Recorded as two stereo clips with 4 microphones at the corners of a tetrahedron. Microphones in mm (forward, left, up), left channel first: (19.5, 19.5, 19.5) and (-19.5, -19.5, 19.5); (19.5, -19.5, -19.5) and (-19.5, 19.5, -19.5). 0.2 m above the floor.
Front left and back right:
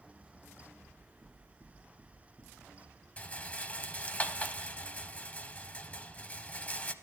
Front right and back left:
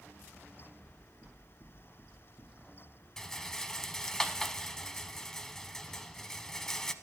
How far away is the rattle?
About 0.5 m.